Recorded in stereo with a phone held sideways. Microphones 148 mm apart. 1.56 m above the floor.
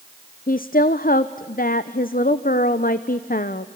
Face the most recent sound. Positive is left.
turn(degrees=75)  # may be behind; listen again after turning